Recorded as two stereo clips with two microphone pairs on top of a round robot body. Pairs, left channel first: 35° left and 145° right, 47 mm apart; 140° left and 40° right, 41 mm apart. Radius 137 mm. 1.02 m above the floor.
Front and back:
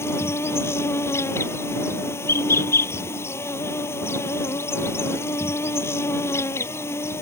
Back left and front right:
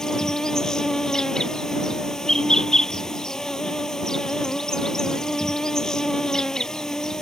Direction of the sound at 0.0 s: 65° left.